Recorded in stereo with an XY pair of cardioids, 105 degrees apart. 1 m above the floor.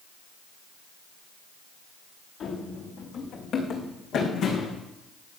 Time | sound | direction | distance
2.4 | running footsteps | 65° left | 5.5 m